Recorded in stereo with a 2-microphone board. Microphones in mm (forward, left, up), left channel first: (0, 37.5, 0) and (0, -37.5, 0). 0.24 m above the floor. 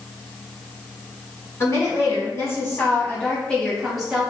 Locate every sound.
1.6 s a woman speaking: 45° left (ahead or behind), 1.9 m; by 4.3 s 15° right (ahead or behind), 1.0 m